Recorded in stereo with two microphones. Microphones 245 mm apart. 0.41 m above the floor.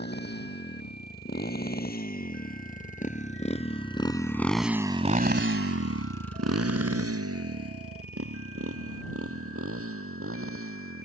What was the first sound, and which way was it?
A motorcycle, 45° left (ahead or behind).